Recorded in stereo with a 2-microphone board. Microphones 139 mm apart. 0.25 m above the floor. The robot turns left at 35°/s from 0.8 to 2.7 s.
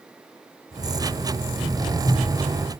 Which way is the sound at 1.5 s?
75° left (ahead or behind).